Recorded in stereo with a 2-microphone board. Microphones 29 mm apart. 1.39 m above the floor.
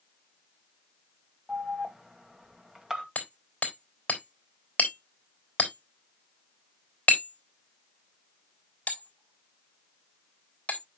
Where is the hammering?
55° left (ahead or behind), 3.5 m.